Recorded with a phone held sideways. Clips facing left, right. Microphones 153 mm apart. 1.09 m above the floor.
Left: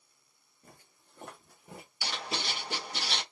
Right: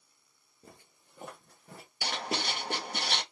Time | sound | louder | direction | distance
0.6 | footsteps | right 3 dB | 25° right (ahead or behind) | 1.3 m
2.0 | writing | right 3 dB | 55° right (ahead or behind) | 0.8 m